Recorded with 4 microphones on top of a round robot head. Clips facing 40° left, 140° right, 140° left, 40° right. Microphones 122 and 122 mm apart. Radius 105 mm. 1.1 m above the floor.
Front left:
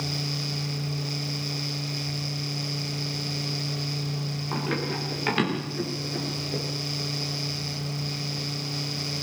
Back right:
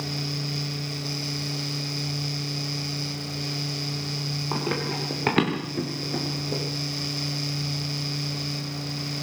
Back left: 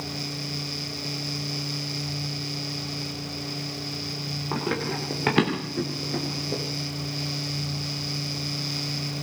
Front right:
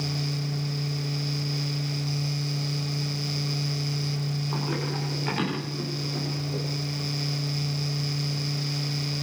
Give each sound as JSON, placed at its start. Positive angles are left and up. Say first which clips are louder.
{"t": 4.5, "sound": "running footsteps", "louder": "back right 1 dB, back left 5 dB", "azimuth_deg": 160, "distance_m": 8.0}